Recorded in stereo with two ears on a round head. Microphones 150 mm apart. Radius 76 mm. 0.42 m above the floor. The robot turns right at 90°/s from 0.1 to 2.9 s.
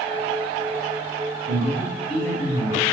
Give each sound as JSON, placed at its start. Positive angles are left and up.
{"t": 1.5, "sound": "a man speaking", "azimuth_deg": -60, "distance_m": 1.7}